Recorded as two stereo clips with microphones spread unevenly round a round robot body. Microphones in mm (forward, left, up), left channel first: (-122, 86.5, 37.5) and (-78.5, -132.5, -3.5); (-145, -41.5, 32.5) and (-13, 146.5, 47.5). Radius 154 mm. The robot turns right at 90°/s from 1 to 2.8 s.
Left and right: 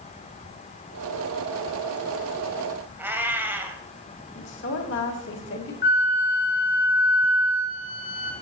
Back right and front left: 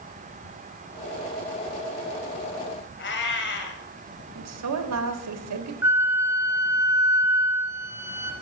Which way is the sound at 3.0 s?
165° right.